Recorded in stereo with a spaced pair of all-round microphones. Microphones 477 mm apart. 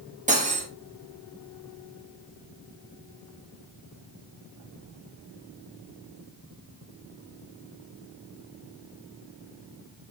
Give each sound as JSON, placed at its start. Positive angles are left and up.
{"t": 0.3, "sound": "cutlery clinking", "side_deg": -15, "distance_m": 0.9}